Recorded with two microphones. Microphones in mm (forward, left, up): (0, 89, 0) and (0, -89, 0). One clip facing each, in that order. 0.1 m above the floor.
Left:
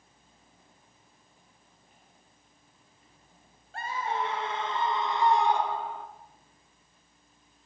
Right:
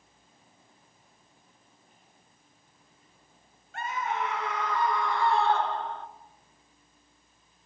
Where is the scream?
35° left (ahead or behind), 1.7 m; by 6.1 s 5° left (ahead or behind), 1.3 m.